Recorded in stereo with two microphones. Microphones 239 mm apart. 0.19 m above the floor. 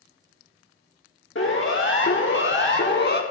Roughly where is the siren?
Left.